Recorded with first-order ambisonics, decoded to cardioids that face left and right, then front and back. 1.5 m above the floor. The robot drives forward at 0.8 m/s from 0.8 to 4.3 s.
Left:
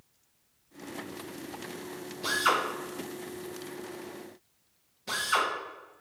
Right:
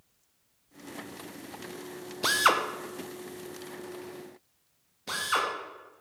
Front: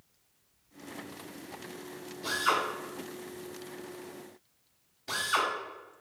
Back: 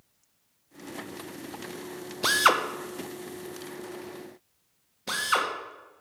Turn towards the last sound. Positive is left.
turn(degrees=-170)